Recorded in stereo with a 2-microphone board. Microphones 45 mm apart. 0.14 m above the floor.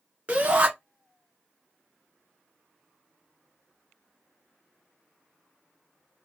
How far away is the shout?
About 1.5 m.